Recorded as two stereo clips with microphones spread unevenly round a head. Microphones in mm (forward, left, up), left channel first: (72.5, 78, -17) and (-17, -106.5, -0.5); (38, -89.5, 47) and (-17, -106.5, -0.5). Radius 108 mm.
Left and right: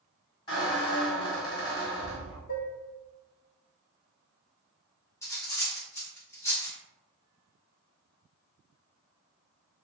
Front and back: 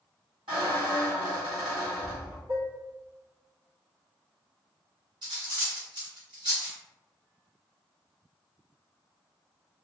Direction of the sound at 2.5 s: 115° left.